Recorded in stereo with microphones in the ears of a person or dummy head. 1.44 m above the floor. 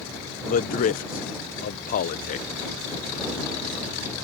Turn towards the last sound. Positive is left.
turn(degrees=50)  # may be behind; listen again after turning